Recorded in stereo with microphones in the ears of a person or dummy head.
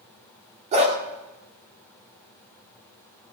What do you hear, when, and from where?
0.7 s a dog barking: 25° right (ahead or behind), 1.7 m